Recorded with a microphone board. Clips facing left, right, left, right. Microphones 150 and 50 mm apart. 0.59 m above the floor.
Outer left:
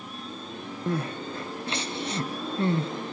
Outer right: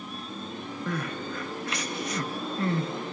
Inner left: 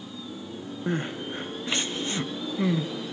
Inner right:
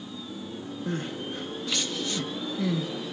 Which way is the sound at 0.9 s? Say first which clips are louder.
Outer left 4 dB, inner left 3 dB; 30° left (ahead or behind).